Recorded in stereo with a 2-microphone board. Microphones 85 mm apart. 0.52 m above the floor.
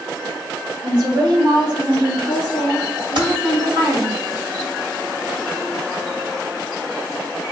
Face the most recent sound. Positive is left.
turn(degrees=-65)  # may be behind; listen again after turning